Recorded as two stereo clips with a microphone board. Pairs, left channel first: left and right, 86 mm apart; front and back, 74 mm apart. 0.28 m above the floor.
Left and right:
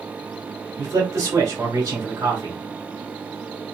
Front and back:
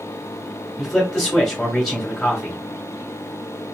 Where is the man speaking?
80° right, 1.5 m.